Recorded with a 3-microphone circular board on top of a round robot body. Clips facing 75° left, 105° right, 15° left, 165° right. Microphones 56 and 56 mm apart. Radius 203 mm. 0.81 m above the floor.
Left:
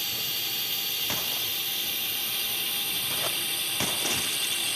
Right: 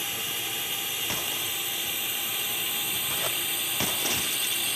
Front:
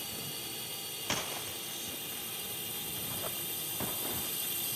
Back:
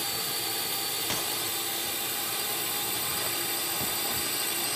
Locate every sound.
0.0 s a drone: 175° right; by 4.8 s 170° left